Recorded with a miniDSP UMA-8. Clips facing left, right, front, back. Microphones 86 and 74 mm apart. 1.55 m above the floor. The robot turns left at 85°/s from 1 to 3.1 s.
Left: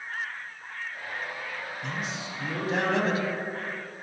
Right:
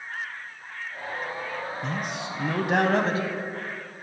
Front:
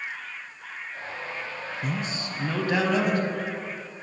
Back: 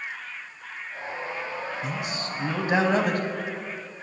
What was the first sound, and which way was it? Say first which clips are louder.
A man speaking: right 3 dB, even; 35° right.